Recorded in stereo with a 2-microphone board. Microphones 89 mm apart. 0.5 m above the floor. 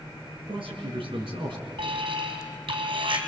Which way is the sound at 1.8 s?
75° right (ahead or behind).